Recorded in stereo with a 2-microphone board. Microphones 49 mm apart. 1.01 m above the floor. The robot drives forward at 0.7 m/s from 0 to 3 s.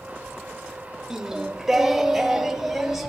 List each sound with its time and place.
1.1 s singing: 15° right (ahead or behind), 0.7 m; by 3.1 s 5° right (ahead or behind), 1.7 m